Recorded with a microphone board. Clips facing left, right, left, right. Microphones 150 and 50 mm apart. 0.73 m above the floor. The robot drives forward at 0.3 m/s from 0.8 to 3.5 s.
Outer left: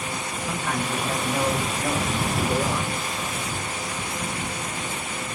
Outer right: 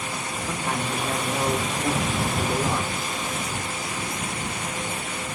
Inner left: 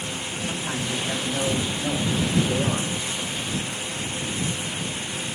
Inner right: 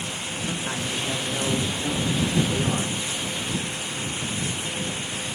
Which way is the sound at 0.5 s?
35° right (ahead or behind).